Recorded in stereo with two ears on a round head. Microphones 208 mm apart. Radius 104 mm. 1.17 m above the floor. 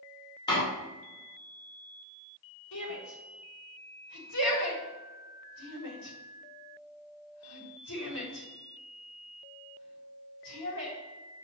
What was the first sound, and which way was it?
A door slam, 20° left (ahead or behind).